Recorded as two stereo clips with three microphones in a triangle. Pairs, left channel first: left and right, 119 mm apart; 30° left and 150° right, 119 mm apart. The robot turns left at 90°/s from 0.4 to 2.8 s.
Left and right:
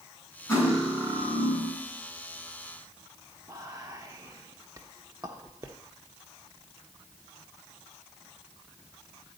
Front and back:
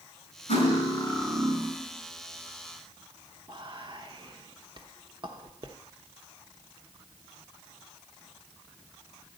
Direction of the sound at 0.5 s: 25° left.